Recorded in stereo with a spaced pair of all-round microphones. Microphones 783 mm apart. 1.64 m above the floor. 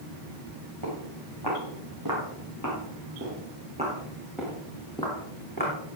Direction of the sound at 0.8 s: 35° right (ahead or behind).